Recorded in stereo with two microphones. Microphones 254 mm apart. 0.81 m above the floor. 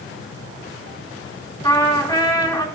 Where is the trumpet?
15° left (ahead or behind), 1.8 m.